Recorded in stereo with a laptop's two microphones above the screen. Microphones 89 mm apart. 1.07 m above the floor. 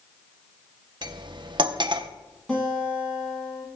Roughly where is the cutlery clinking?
Right.